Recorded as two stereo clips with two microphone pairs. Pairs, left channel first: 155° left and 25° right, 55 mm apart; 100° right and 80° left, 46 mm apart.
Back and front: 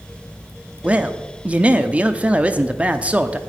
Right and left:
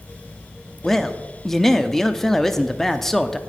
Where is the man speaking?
20° right, 0.6 m.